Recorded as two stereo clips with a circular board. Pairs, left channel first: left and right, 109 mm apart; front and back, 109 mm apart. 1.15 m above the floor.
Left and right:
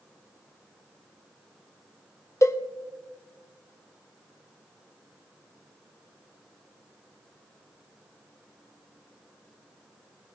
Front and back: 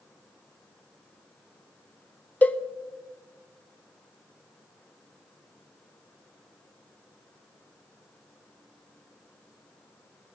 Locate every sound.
2.4 s a cowbell: 60° left, 0.6 m